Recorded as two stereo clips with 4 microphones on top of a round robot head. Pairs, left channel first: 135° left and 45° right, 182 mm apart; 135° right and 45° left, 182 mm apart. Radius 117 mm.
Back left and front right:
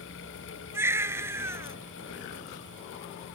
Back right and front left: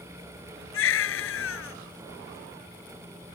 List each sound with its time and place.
0.7 s a baby crying: 125° right